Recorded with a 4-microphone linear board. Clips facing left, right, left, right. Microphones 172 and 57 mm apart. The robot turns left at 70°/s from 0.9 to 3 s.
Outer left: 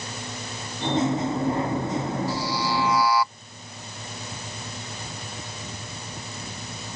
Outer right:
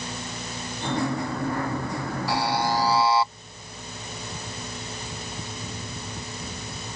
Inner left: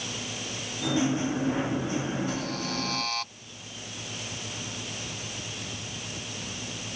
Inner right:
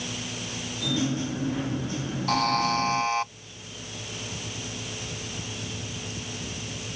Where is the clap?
I don't hear a clap.